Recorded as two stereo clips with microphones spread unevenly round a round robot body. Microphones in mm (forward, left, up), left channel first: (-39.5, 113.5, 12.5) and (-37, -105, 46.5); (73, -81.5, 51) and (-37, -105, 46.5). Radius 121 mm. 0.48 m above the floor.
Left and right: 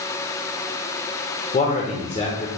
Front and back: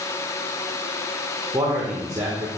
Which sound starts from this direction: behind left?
A man speaking, at 1.5 s.